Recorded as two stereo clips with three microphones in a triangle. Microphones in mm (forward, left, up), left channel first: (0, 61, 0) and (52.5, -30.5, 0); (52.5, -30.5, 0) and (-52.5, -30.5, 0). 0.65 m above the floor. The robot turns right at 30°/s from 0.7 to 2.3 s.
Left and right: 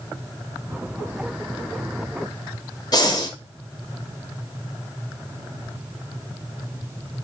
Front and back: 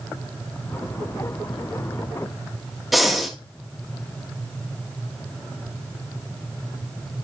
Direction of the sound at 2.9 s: 90° left.